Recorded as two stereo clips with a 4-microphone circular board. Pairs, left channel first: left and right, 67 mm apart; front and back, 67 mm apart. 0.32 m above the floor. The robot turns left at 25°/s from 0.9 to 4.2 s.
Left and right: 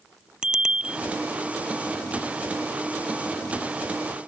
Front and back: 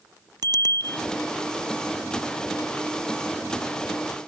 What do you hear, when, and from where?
0.4 s a bicycle bell: 170° right